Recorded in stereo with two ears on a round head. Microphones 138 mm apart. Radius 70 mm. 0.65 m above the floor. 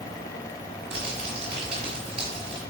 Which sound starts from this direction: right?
Crumpling, at 0.9 s.